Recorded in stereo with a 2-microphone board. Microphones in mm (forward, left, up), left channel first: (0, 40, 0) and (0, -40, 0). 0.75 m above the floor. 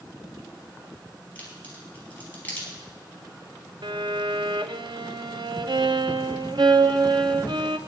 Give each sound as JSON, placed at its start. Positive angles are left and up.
{"t": 1.4, "sound": "a crack", "side_deg": 20, "distance_m": 5.0}
{"t": 3.8, "sound": "a violin", "side_deg": -70, "distance_m": 0.6}